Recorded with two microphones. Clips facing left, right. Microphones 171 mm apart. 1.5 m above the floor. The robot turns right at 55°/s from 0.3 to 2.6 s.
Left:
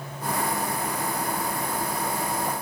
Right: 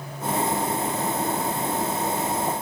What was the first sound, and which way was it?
Only background noise.